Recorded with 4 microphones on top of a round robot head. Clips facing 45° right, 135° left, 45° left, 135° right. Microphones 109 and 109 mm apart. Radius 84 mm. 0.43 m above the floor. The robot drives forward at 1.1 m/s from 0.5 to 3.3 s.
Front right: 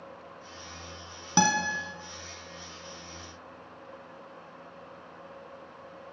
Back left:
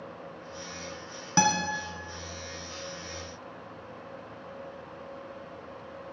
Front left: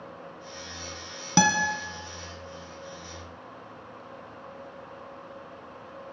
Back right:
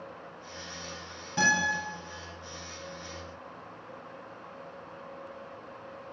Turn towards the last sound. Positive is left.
turn(degrees=145)